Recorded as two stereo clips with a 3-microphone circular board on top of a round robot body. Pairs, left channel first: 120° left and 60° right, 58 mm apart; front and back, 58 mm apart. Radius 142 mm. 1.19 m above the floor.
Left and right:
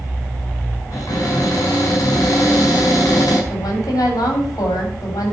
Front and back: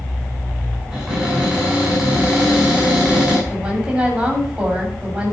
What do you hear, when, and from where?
0.9 s a cupboard door: 95° left, 5 m
3.5 s a woman speaking: 105° left, 3.5 m